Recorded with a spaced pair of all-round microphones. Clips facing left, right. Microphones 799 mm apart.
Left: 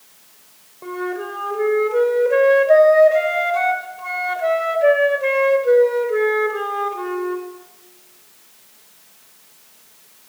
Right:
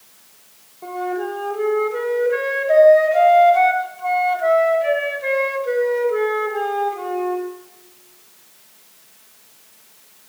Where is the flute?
20° left (ahead or behind), 1.2 m.